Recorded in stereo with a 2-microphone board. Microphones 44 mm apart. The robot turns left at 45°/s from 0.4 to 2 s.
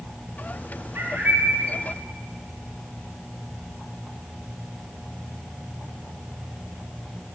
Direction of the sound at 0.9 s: 115° right.